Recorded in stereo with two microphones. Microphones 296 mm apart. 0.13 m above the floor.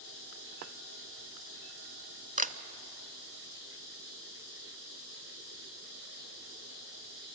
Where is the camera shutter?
25° right (ahead or behind), 0.5 m.